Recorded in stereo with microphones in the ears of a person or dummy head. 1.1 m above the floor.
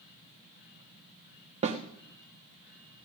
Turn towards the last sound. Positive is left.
turn(degrees=-35)  # may be behind; listen again after turning